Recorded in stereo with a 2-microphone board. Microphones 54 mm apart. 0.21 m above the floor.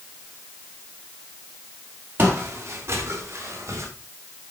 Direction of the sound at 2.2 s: 45° right (ahead or behind).